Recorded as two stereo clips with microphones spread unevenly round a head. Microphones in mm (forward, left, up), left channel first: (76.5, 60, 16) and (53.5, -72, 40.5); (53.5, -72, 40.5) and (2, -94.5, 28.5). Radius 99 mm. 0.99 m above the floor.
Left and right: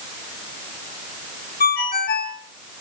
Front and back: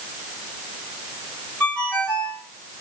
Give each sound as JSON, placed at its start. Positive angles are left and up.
{"t": 1.6, "sound": "a ringtone", "azimuth_deg": 105, "distance_m": 3.5}